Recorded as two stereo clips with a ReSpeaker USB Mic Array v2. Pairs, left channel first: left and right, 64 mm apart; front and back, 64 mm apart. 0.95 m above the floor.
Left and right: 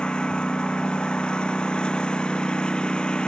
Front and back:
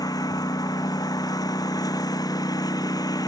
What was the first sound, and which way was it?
A lawn mower, 15° left.